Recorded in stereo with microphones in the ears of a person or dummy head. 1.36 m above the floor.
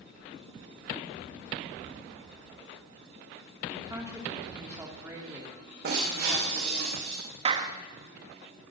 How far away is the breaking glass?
About 7.5 m.